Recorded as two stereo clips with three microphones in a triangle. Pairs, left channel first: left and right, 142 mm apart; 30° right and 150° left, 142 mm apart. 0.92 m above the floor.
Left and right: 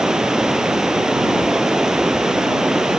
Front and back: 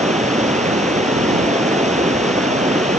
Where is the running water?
175° right.